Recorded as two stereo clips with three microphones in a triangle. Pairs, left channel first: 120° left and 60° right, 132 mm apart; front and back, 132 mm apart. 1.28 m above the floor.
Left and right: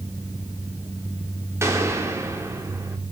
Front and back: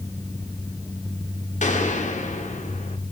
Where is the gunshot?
10° left, 1.6 m.